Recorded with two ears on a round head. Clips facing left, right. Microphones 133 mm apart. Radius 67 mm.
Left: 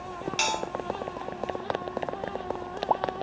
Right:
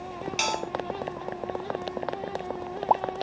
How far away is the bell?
About 0.5 m.